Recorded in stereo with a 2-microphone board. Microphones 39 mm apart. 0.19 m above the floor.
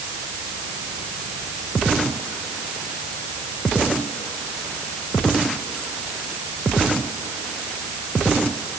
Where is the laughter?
No laughter in this recording.